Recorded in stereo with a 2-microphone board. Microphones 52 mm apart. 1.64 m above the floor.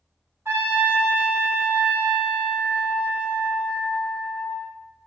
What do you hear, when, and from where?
0.5 s a trumpet: 45° right (ahead or behind), 1.5 m